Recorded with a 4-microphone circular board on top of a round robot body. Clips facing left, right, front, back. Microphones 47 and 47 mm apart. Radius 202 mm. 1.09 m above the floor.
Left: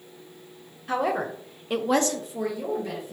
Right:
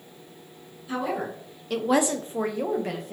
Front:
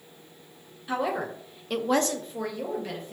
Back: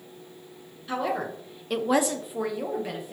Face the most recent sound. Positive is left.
turn(degrees=-105)